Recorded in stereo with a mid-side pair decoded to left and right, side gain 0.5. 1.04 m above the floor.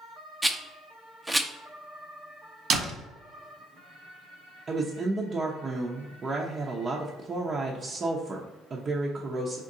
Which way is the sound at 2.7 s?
55° right.